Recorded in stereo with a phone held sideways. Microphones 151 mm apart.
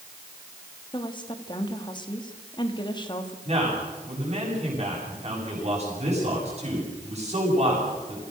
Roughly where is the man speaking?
Right.